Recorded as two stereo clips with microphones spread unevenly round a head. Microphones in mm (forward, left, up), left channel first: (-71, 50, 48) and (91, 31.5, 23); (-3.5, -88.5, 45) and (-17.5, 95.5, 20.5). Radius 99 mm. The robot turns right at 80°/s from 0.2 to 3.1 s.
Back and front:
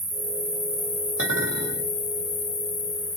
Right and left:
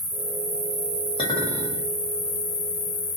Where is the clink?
25° right, 1.2 m; by 1.9 s 30° left, 1.2 m.